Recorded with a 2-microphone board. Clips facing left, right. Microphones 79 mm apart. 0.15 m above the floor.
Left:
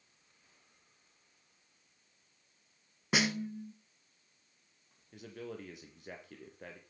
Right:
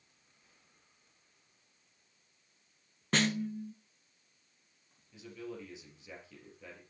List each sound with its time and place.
3.1 s a snare drum: 10° left (ahead or behind), 0.8 m
5.1 s a man speaking: 60° left (ahead or behind), 3.5 m